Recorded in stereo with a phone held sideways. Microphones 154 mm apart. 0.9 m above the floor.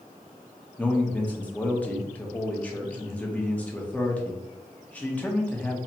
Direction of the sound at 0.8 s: 10° left (ahead or behind).